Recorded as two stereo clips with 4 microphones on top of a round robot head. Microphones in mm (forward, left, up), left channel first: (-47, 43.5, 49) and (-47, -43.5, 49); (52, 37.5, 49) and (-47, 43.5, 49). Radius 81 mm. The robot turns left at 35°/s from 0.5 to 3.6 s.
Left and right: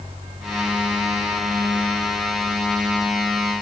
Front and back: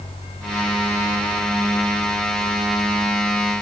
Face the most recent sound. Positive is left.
No sound to turn to.